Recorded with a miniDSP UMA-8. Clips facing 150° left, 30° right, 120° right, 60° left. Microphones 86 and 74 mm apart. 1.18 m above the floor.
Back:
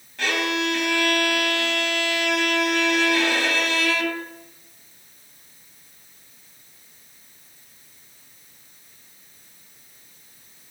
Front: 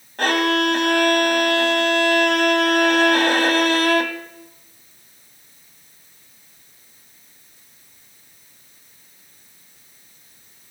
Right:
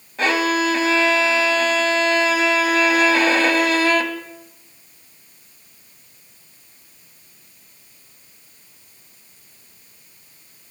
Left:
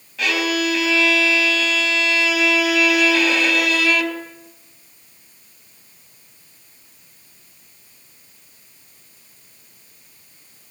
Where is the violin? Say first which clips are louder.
Front 6 dB, right 2 dB; 70° right, 3 m.